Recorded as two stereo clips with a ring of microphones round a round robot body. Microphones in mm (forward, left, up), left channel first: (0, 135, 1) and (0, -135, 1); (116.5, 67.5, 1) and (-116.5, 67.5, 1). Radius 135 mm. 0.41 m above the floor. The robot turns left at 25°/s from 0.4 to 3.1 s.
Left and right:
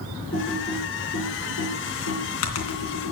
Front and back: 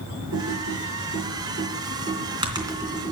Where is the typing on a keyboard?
160° left, 3 m; by 3.1 s 95° left, 3 m.